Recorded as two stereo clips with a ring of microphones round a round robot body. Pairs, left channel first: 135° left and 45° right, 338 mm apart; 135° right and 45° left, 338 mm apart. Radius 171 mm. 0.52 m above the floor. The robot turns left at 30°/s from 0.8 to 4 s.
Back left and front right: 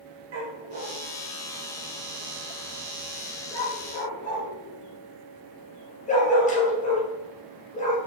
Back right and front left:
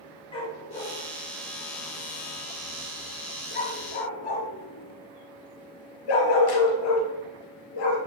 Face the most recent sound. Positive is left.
turn(degrees=-155)